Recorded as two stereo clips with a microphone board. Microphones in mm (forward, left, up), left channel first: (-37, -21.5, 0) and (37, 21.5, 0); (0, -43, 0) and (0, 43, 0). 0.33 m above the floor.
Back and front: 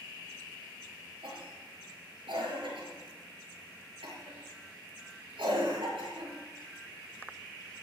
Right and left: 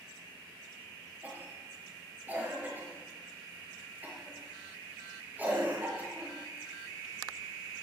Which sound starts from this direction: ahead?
A cough, at 1.2 s.